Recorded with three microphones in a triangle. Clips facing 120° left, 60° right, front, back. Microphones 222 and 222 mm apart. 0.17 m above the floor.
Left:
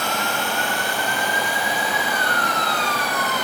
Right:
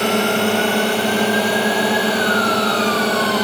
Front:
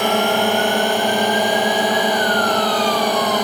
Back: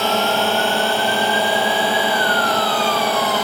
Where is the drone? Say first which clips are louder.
Right 10 dB, front 2 dB; 75° right.